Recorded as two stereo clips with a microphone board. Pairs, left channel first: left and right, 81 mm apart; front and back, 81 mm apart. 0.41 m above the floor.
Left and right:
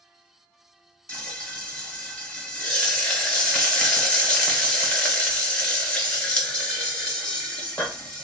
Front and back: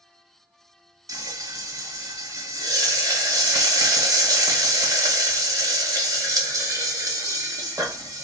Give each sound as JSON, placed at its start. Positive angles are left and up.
{"t": 1.1, "sound": "frying", "azimuth_deg": 165, "distance_m": 1.2}